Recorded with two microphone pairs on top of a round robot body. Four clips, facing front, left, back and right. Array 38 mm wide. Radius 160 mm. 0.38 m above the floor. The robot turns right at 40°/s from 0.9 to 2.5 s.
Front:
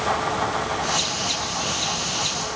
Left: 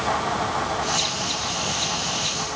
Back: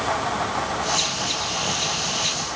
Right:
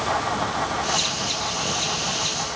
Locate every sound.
Only background noise.